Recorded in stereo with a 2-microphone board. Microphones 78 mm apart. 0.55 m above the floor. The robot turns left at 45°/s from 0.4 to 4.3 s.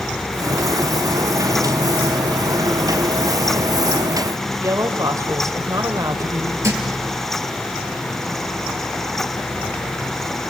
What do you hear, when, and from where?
4.6 s a woman speaking: 50° right (ahead or behind), 2.5 m
6.6 s a thud: 35° right (ahead or behind), 3 m